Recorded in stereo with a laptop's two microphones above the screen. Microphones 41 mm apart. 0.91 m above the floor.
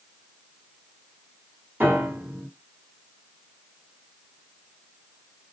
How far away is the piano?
About 1.5 m.